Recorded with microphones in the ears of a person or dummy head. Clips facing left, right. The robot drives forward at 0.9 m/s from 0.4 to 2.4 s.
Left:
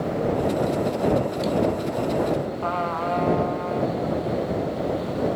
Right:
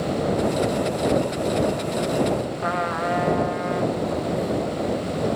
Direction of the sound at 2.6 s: 20° right (ahead or behind).